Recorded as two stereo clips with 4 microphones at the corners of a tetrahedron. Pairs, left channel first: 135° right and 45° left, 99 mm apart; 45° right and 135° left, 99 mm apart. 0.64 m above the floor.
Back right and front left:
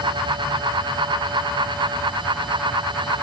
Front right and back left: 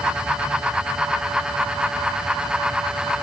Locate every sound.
Only background noise.